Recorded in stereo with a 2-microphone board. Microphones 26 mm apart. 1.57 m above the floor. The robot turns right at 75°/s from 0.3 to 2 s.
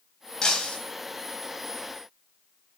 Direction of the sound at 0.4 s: 30° left (ahead or behind).